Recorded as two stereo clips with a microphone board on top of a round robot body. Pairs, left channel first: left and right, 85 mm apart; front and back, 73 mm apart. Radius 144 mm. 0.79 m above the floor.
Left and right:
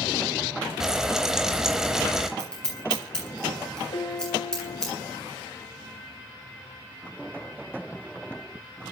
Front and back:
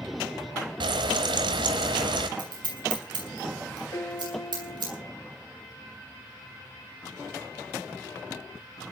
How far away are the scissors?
About 8 m.